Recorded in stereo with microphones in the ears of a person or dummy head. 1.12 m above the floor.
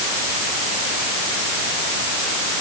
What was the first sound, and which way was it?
Only background noise.